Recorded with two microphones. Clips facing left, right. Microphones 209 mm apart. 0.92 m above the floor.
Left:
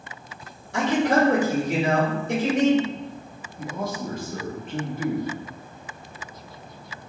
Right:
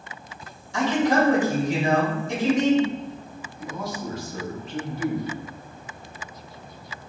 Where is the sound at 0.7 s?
60° left (ahead or behind), 1.9 m.